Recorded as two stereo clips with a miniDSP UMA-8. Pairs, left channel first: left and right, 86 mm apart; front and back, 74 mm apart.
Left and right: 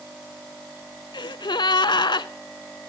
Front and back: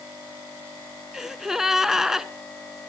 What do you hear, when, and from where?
1.1 s a gasp: 100° left, 0.7 m